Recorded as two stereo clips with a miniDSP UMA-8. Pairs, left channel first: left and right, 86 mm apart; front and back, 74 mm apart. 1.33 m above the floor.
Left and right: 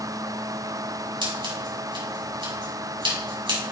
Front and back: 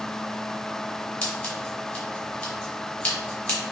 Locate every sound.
1.2 s scissors: 80° right, 3.5 m